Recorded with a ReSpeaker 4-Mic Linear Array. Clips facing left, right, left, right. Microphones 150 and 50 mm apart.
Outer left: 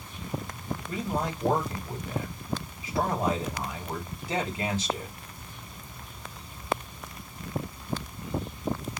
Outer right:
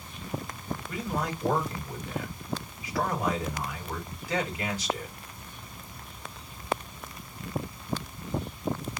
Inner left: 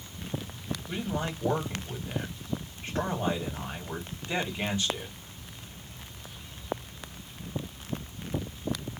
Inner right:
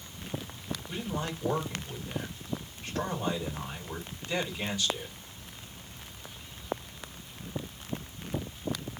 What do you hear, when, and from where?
0.9 s a man speaking: 30° left (ahead or behind), 1.7 m